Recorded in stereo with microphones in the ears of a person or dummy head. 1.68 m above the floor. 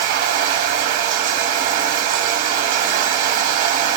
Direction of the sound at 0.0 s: 40° right (ahead or behind).